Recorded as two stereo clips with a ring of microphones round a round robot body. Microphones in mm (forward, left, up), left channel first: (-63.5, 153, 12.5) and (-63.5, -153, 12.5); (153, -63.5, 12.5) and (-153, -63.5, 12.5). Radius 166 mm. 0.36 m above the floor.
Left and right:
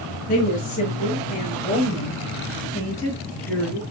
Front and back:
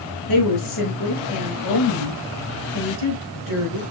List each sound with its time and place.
0.3 s a woman speaking: 25° left, 5.5 m; by 3.8 s 5° left, 5.5 m